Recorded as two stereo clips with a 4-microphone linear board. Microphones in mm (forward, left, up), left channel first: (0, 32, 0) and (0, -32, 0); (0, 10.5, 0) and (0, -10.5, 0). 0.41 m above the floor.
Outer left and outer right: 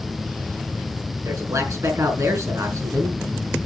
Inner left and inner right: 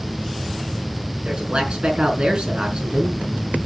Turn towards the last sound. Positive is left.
turn(degrees=-55)  # may be behind; listen again after turning